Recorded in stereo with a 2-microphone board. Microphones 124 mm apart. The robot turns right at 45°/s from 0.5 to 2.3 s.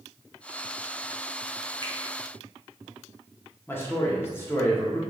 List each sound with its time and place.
1.8 s a finger snap: 40° right (ahead or behind), 0.6 m
3.7 s a man speaking: 20° left (ahead or behind), 0.7 m